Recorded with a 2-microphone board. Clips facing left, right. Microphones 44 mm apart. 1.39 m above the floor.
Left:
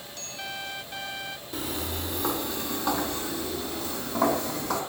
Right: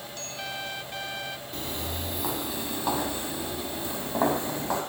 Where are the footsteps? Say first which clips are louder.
Left 4 dB; centre (ahead or behind), 2.5 m; by 4.8 s 30° right (ahead or behind), 4 m.